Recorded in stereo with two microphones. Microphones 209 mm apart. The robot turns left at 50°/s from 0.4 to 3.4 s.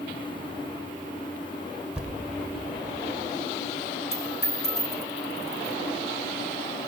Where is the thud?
5° right (ahead or behind), 1.6 m; by 2.2 s 5° left (ahead or behind), 1.6 m.